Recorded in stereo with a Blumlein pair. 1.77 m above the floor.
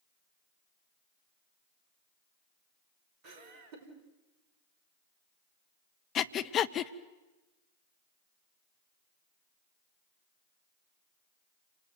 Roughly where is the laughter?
Ahead right.